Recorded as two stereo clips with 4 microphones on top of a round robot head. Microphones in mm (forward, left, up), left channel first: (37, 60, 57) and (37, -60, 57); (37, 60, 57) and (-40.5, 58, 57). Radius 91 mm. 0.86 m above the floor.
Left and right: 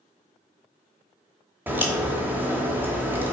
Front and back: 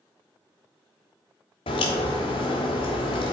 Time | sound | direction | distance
1.7 | a crack | 15° right | 1.0 m